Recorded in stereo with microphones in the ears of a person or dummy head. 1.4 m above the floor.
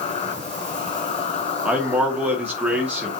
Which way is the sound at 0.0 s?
40° left (ahead or behind).